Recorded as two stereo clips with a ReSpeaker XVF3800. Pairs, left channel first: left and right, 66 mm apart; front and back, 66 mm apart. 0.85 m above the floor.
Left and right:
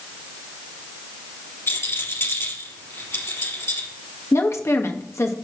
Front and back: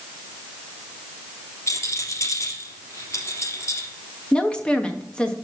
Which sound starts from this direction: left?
A woman speaking, at 4.3 s.